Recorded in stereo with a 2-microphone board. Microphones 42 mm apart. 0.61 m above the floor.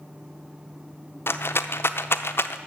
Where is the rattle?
70° left (ahead or behind), 0.6 m.